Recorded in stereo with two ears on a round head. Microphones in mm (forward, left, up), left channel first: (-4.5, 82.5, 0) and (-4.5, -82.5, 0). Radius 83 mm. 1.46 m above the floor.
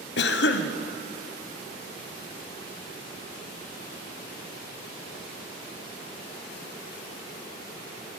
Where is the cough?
65° left (ahead or behind), 0.9 m.